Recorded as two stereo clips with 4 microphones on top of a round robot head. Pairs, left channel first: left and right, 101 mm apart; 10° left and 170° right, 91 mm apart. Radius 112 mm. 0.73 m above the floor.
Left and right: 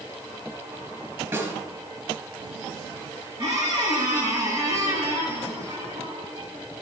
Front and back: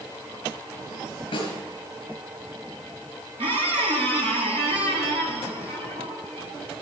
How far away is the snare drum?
About 4.5 m.